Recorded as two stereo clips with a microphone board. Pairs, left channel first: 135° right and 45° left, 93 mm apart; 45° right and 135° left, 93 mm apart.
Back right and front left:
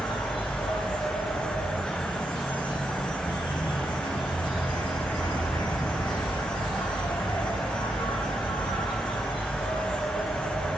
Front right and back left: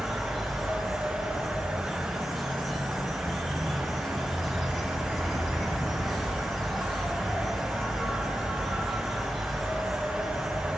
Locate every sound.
0.0 s an insect: 135° right, 4 m